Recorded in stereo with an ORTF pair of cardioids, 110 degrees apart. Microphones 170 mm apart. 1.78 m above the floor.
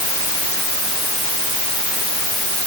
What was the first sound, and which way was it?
Only background noise.